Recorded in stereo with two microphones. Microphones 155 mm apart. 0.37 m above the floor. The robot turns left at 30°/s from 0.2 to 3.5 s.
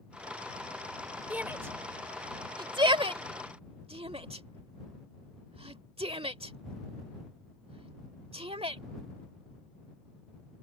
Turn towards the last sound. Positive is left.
turn(degrees=-40)  # may be behind; listen again after turning